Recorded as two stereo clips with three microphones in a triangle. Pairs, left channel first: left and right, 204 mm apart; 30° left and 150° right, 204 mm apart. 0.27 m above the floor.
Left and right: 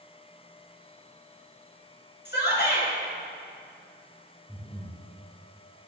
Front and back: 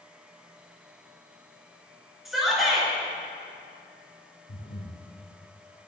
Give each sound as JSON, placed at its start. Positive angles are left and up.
{"t": 2.2, "sound": "a shout", "azimuth_deg": 120, "distance_m": 4.5}
{"t": 4.5, "sound": "breathing", "azimuth_deg": 15, "distance_m": 3.0}